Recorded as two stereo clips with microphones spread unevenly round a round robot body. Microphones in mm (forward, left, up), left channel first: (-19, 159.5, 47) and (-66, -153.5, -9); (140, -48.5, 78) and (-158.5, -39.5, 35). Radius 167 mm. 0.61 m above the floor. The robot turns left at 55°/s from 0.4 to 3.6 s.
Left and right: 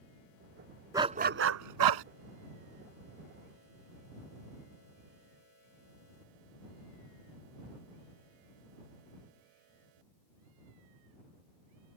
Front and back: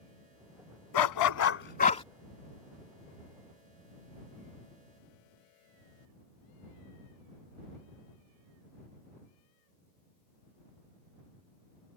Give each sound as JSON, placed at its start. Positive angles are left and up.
{"t": 0.9, "sound": "a dog barking", "azimuth_deg": -15}